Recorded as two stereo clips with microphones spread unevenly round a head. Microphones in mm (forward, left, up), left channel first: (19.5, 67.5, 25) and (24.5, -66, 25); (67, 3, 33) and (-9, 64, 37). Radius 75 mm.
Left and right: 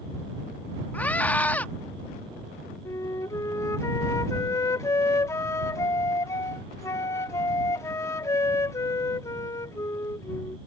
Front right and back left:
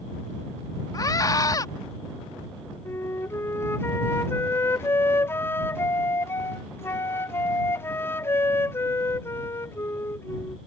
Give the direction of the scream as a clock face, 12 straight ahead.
12 o'clock.